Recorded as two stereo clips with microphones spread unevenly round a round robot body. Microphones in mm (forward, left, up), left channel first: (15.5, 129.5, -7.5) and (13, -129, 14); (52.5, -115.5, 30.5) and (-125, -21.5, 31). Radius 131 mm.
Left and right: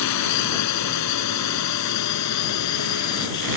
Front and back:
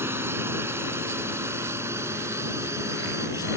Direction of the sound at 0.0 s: 70° left.